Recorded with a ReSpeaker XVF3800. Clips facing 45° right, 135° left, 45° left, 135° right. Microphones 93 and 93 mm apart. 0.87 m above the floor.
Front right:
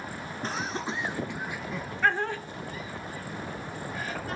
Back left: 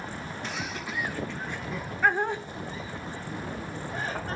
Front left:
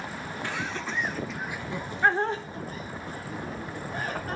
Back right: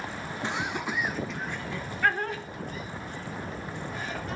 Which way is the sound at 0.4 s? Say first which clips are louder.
Front right 5 dB, back right 2 dB; 80° right.